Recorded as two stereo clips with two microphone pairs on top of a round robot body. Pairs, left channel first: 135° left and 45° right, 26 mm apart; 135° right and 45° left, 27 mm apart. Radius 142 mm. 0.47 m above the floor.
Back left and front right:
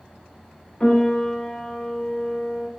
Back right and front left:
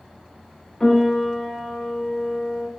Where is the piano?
165° left, 0.8 m.